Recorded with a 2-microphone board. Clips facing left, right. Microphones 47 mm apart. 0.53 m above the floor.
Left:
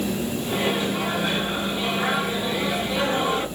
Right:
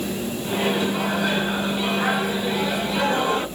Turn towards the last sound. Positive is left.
turn(degrees=-55)  # may be behind; listen again after turning